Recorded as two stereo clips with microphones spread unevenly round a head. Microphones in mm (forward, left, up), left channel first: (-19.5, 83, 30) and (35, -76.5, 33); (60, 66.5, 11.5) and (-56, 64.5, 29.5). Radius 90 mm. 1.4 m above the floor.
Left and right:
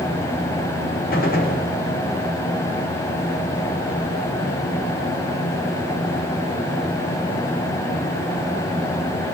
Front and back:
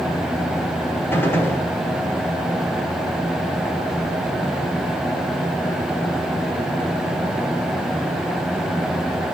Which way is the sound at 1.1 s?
70° left.